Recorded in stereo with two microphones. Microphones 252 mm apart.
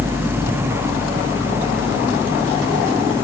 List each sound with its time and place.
Only background noise.